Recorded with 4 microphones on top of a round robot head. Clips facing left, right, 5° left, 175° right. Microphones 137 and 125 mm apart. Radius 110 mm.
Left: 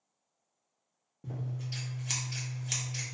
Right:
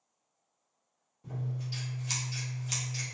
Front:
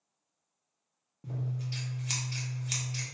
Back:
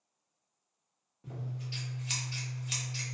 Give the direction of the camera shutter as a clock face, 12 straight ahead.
No camera shutter in this recording.